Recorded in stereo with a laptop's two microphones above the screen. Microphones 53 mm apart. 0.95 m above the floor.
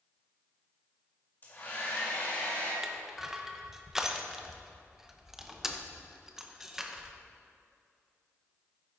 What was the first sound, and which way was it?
A hair dryer, 40° left (ahead or behind).